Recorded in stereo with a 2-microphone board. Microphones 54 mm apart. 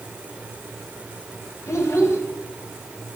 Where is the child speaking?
60° left (ahead or behind), 2 m.